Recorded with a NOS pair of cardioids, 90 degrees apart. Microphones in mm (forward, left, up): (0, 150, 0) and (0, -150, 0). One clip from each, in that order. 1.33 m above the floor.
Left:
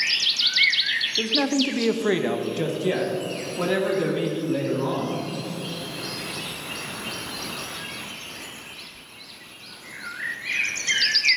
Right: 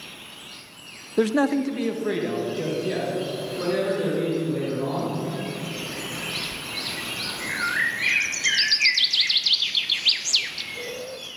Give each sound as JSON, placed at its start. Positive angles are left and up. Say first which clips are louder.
{"t": 1.2, "sound": "a man speaking", "louder": "even", "azimuth_deg": -50, "distance_m": 0.5}